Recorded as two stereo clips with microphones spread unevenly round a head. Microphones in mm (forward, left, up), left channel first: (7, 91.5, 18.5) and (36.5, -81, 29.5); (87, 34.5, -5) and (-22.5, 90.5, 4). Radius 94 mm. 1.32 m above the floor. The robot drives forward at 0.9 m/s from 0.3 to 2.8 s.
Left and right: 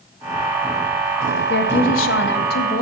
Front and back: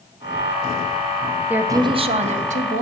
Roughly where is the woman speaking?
Left.